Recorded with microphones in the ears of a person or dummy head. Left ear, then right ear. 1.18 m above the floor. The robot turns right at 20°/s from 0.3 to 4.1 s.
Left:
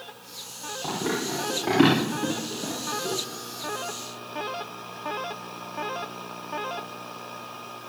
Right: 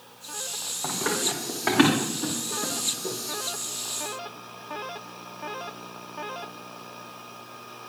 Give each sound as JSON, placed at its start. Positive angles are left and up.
{"t": 0.8, "sound": "running footsteps", "side_deg": -55, "distance_m": 7.0}